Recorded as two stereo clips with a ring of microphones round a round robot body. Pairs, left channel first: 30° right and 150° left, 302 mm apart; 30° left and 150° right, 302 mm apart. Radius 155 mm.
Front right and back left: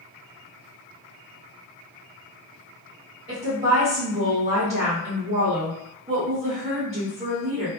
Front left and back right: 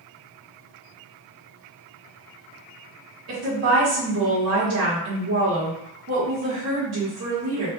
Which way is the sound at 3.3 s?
145° right.